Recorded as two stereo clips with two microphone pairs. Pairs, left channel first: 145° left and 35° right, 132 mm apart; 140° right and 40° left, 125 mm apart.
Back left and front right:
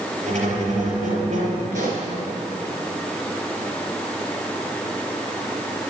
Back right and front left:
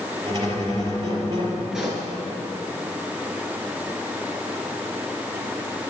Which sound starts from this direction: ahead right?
A pop, at 1.7 s.